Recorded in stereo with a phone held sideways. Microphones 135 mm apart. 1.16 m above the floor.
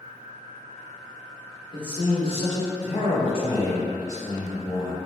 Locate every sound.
1.7 s a man speaking: 35° left (ahead or behind), 1.0 m; by 5.0 s 5° left (ahead or behind), 1.3 m